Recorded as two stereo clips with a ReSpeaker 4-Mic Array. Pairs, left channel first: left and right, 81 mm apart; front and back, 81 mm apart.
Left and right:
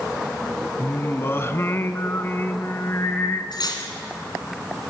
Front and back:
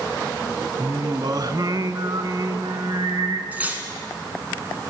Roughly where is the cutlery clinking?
Left.